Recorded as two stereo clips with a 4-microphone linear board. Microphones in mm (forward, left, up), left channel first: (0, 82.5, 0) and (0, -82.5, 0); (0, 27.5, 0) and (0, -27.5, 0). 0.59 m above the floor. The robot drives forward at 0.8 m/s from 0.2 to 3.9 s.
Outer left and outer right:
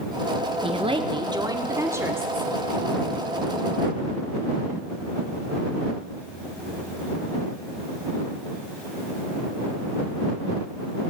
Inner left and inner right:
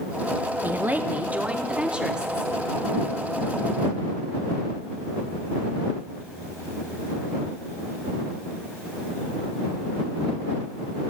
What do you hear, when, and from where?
0.6 s a woman speaking: 35° right (ahead or behind), 0.7 m; by 2.5 s 15° right (ahead or behind), 1.7 m